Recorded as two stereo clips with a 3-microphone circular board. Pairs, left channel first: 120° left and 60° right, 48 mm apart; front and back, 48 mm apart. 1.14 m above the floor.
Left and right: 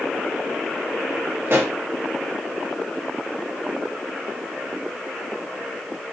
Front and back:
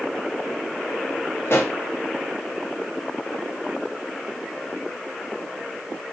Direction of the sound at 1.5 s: 30° right.